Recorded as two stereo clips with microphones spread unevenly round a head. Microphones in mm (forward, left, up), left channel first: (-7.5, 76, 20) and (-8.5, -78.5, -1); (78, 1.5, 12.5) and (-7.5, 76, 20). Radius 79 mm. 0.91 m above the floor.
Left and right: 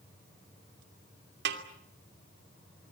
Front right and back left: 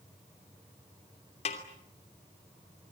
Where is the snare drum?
85° right, 2.5 m.